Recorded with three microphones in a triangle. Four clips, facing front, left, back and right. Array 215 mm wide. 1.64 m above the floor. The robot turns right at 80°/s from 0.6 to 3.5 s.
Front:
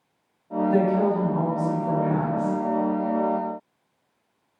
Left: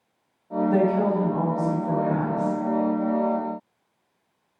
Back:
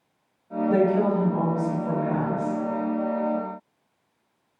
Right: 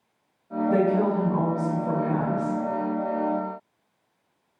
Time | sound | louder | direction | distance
0.7 | a woman speaking | even, back 1 dB | 170° left | 1.8 m